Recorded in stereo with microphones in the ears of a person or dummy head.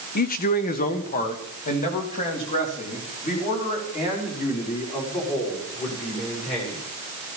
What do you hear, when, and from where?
0.1 s a man speaking: 45° left (ahead or behind), 0.9 m; by 6.8 s 35° left (ahead or behind), 7 m